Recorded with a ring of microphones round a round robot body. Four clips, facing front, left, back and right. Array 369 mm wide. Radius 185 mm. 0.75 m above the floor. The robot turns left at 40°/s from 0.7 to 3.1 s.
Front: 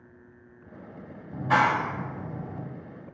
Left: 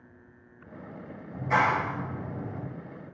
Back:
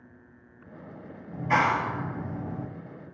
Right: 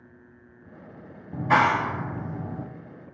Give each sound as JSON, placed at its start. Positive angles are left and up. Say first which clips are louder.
{"t": 1.3, "sound": "a clap", "louder": "right 4 dB, front 1 dB", "azimuth_deg": -75, "distance_m": 0.9}